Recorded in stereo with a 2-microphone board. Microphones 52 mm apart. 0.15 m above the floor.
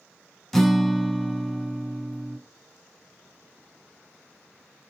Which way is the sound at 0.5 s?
5° left (ahead or behind).